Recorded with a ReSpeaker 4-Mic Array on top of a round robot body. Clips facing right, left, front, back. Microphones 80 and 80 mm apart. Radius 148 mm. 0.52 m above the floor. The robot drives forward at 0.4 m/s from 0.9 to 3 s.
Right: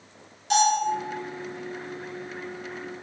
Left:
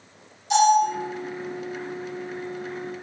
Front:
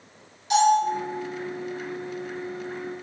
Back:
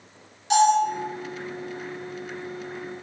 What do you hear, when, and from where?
0.5 s a bell: 120° right, 1.7 m